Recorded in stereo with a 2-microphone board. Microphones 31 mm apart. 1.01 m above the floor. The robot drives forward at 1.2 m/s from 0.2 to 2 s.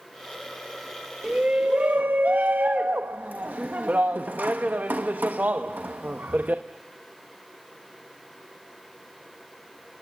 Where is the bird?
I don't hear a bird.